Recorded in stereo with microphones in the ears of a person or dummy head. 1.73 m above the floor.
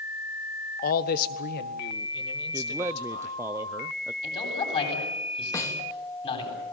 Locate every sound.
0.8 s a man speaking: 50° left (ahead or behind), 1.2 m; by 3.4 s 60° left (ahead or behind), 3.5 m
2.5 s a man speaking: 15° right (ahead or behind), 0.6 m
4.2 s a man speaking: 30° left (ahead or behind), 9.5 m
5.5 s a snare drum: 20° left (ahead or behind), 3 m